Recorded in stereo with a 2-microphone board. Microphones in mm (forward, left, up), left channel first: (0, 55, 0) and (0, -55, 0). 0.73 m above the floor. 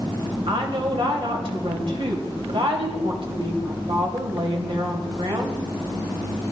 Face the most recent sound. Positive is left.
turn(degrees=-60)  # may be behind; listen again after turning